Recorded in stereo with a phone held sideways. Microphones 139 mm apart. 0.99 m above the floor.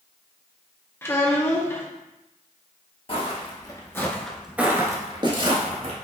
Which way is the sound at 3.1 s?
45° left (ahead or behind).